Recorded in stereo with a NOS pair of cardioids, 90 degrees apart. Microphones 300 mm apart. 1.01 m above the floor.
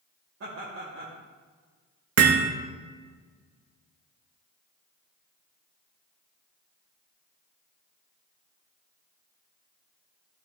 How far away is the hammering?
About 0.9 m.